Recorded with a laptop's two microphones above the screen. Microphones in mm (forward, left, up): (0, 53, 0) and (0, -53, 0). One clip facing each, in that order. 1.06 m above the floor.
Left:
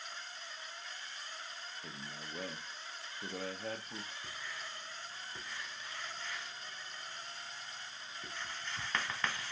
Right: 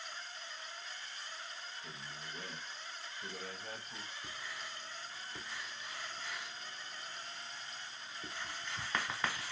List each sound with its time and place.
1.8 s a man speaking: 75° left (ahead or behind), 0.6 m
4.2 s writing: 10° right (ahead or behind), 1.0 m